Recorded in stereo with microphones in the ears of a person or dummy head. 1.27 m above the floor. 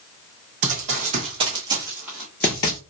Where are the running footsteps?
40° right (ahead or behind), 2.0 m; by 2.8 s 20° left (ahead or behind), 1.3 m.